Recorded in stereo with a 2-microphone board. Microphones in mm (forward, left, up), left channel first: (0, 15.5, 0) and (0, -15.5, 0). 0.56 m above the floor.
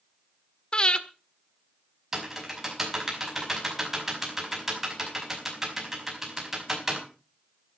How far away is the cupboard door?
No cupboard door in this recording.